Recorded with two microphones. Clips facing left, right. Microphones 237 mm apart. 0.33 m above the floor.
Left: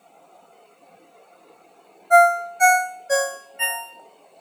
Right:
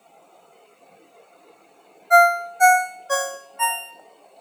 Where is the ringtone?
20° left (ahead or behind), 0.6 m.